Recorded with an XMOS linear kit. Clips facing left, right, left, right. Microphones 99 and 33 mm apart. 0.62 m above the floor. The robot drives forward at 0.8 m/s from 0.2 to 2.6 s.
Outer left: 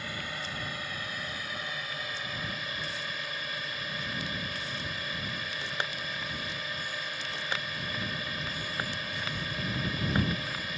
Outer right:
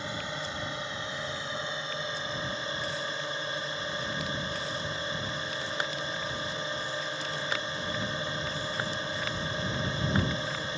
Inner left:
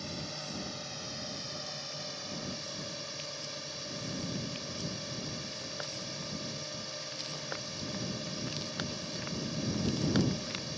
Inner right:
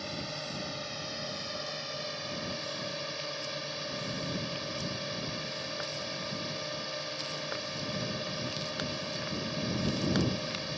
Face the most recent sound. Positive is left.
turn(degrees=-30)  # may be behind; listen again after turning